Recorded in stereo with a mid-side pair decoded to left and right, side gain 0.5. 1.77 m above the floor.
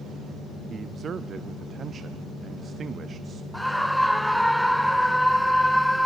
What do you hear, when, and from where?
0.7 s a man speaking: 45° right, 0.7 m
3.5 s a scream: straight ahead, 1.0 m